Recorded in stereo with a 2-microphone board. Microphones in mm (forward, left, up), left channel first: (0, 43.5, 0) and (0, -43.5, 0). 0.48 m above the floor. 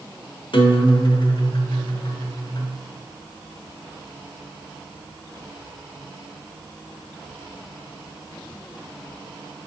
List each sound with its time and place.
0.5 s a guitar: 60° left (ahead or behind), 0.9 m